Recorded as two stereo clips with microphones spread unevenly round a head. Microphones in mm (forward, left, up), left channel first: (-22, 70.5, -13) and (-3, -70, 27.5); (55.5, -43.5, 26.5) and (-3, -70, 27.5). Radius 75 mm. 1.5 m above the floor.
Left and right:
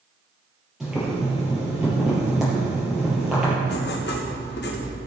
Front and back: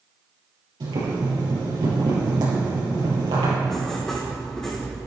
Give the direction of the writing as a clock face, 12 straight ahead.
8 o'clock.